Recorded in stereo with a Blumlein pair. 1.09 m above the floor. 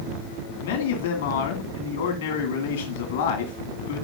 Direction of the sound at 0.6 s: 55° left.